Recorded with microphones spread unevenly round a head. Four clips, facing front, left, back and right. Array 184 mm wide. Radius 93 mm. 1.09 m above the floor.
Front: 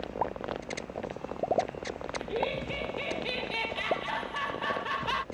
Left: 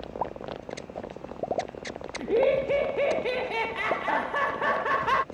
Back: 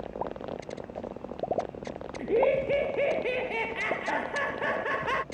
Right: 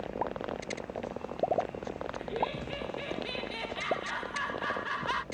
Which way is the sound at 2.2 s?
125° left.